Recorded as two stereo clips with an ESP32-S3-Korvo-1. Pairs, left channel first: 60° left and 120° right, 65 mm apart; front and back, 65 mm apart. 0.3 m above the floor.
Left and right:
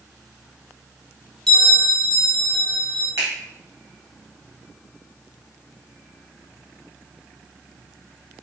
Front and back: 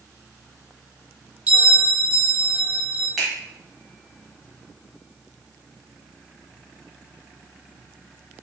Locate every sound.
1.5 s a bell: 135° left, 1.0 m
3.2 s a finger snap: 95° right, 1.9 m